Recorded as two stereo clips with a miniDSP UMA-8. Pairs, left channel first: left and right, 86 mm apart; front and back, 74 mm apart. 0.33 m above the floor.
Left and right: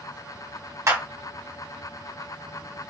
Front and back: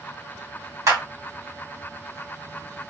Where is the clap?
140° right, 2 m.